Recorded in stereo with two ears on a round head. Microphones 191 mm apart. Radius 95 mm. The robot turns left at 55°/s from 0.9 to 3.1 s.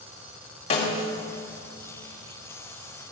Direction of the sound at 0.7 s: 30° left (ahead or behind).